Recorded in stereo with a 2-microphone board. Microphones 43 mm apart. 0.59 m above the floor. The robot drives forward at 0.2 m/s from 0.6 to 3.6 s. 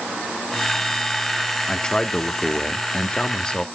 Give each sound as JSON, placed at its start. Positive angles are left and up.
{"t": 1.7, "sound": "a man speaking", "side_deg": 15, "distance_m": 0.9}